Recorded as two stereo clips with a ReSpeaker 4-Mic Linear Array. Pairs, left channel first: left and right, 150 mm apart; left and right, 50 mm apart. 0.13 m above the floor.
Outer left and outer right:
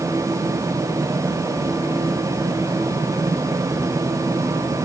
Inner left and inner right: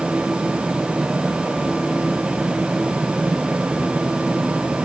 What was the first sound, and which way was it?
Only background noise.